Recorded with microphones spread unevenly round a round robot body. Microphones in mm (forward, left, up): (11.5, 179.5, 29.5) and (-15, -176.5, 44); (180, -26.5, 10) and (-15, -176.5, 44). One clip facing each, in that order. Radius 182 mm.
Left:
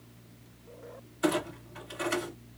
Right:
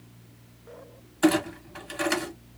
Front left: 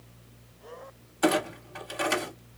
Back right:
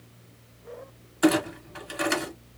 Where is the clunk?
75° right, 1.9 m.